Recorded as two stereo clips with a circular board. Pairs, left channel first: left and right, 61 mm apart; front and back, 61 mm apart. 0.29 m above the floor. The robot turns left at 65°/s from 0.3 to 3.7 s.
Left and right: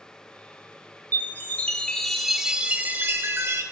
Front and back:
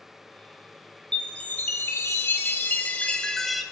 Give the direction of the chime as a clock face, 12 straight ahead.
10 o'clock.